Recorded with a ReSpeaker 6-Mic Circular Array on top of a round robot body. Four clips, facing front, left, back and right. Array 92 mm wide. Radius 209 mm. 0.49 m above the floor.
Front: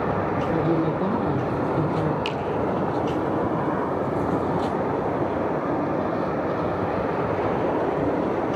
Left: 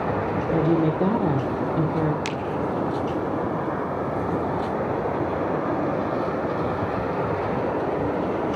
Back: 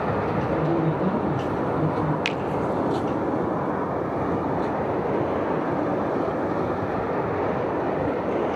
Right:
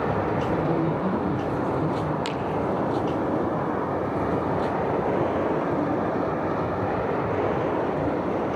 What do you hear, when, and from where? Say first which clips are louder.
0.5 s a woman speaking: left 3 dB, front 2 dB; 75° left, 2 m
2.2 s a finger snap: even, even; 170° left, 1.8 m